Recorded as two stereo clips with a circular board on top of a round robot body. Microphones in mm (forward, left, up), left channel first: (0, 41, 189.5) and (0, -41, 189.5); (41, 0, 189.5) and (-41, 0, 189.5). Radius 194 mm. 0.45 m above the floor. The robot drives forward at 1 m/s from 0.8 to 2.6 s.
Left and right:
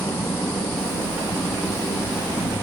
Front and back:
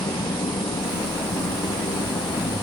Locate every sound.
0.0 s an engine running: 25° left